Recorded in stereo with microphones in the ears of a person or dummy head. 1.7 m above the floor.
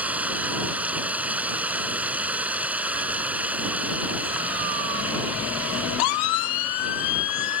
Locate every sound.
0.0 s running water: 10° right (ahead or behind)